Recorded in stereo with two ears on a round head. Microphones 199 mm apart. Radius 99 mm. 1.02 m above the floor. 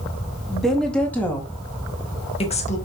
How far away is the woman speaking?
About 2 m.